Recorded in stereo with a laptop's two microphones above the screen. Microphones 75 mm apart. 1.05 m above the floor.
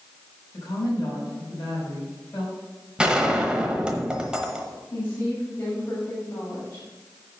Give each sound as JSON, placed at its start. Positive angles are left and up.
{"t": 0.5, "sound": "a woman speaking", "side_deg": 50, "distance_m": 4.5}
{"t": 3.0, "sound": "a gunshot", "side_deg": -10, "distance_m": 1.0}
{"t": 4.9, "sound": "a woman speaking", "side_deg": 35, "distance_m": 4.5}